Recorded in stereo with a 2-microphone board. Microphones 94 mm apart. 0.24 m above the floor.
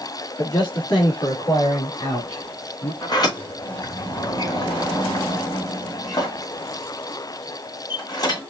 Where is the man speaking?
45° left (ahead or behind), 3.5 m; by 2.9 s 65° left (ahead or behind), 3.5 m.